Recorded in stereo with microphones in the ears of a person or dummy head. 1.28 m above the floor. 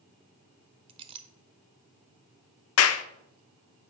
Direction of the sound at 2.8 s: 80° left.